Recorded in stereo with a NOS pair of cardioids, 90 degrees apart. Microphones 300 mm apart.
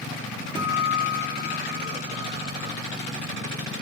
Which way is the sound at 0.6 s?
15° right.